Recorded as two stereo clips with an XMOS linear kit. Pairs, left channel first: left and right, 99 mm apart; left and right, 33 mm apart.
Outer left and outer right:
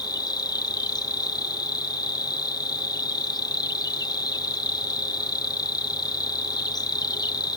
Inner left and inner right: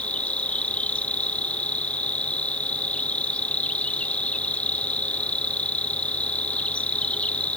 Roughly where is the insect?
Left.